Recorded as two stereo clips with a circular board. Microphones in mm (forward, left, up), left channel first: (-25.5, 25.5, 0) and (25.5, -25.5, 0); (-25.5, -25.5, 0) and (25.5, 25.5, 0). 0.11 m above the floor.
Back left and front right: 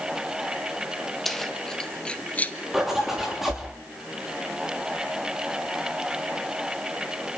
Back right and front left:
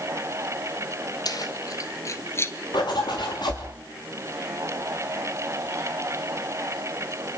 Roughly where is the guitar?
No guitar in this recording.